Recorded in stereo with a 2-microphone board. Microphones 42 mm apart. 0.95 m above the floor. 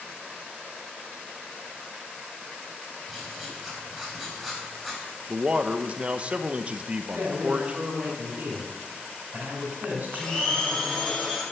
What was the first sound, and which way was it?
Writing, 5° right (ahead or behind).